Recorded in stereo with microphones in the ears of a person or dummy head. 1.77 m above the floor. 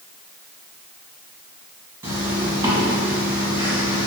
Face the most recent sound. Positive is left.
turn(degrees=-15)  # may be behind; listen again after turning